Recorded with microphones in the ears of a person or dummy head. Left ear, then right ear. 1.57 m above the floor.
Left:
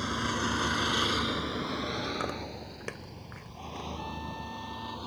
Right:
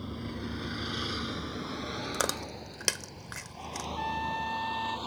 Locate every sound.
0.0 s a vehicle: 55° left (ahead or behind); by 5.1 s 25° right (ahead or behind)
2.1 s chewing: 80° right
4.0 s a trumpet: 45° right (ahead or behind)